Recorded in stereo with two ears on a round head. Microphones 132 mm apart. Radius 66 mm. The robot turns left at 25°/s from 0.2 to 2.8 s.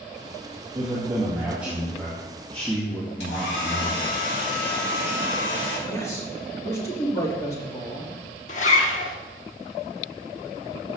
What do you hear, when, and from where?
0.8 s a man speaking: 145° right, 1.9 m; by 4.1 s 160° left, 1.9 m
3.2 s a hair dryer: 80° left, 4 m
5.9 s a man speaking: 20° left (ahead or behind), 2.5 m
8.5 s a zipper: 50° left (ahead or behind), 1.2 m